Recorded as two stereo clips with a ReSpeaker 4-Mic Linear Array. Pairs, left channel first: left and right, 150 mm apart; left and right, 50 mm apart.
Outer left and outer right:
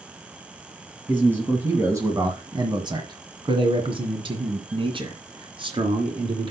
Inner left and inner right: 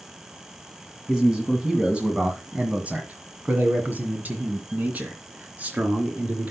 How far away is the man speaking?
About 2.0 m.